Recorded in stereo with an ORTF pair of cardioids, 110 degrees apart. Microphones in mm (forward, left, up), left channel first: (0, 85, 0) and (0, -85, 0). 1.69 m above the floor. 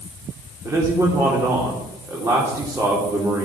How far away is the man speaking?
About 4 m.